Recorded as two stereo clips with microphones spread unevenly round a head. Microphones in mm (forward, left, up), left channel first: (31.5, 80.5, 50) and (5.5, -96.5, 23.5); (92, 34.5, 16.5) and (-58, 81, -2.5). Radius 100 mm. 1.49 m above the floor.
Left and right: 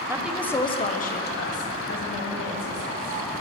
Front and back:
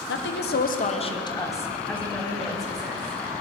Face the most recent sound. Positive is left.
turn(degrees=75)